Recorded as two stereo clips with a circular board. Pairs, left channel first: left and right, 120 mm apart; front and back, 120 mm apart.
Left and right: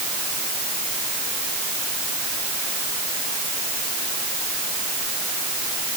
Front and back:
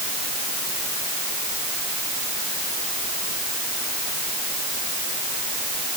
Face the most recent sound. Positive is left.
No sound to turn to.